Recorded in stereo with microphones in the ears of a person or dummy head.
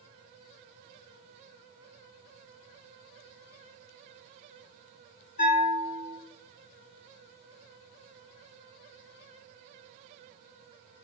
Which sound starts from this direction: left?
A bell, at 5.4 s.